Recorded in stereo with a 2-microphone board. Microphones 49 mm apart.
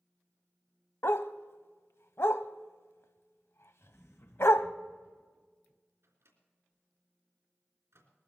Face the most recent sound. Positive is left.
turn(degrees=-60)  # may be behind; listen again after turning